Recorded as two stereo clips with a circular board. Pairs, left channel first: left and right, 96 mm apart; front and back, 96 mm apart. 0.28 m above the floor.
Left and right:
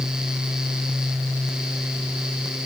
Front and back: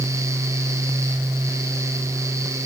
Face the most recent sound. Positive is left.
No sound to turn to.